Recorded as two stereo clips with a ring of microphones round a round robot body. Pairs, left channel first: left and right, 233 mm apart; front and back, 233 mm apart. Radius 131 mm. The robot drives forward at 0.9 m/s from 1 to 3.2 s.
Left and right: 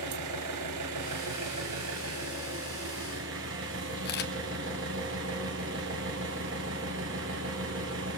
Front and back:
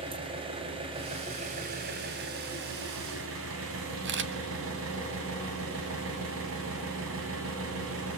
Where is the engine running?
110° right, 3 m; by 8.2 s 135° right, 4 m.